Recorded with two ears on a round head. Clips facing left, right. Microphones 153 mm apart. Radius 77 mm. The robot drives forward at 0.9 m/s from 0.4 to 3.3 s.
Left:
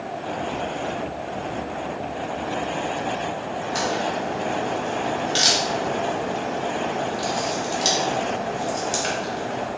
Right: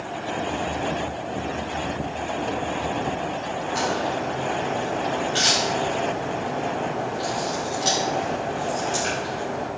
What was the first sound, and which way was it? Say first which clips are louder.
A crack: even; 50° left (ahead or behind).